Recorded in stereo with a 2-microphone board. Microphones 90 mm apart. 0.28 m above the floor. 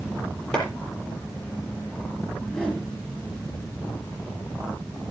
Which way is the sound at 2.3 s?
10° left (ahead or behind).